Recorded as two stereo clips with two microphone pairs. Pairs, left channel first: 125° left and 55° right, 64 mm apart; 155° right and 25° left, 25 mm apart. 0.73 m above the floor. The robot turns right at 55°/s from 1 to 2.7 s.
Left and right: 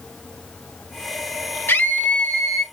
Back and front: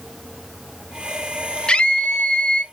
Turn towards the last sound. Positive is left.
turn(degrees=-140)